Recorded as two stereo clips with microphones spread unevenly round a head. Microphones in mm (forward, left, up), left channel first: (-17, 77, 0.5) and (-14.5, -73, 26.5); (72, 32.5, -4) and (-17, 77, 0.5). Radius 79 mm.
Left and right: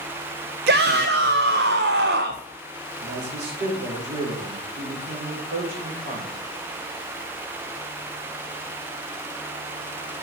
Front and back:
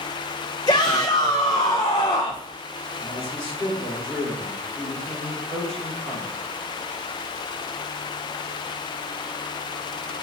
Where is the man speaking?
110° right, 4.5 m.